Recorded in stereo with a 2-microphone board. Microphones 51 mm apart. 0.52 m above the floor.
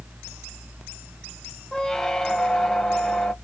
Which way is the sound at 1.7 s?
10° left (ahead or behind).